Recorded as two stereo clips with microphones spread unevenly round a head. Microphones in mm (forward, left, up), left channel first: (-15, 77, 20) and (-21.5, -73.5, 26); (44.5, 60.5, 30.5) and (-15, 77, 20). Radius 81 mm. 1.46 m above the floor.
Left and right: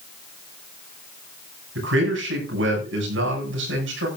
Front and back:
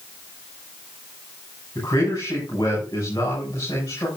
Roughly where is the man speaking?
Right.